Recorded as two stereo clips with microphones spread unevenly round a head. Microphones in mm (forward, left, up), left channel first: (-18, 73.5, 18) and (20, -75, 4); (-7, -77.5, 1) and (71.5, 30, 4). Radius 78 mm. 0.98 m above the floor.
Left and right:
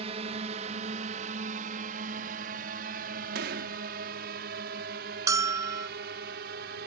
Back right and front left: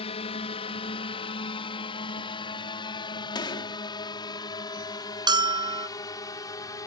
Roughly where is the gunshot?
Right.